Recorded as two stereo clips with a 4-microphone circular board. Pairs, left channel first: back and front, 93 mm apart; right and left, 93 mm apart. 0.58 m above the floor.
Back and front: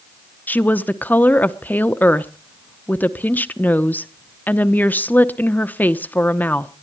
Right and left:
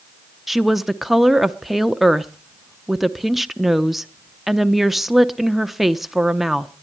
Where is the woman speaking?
175° left, 0.8 m.